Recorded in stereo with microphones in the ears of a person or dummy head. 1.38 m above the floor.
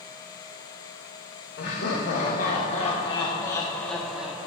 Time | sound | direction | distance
1.6 | laughter | 65° left (ahead or behind) | 1.6 m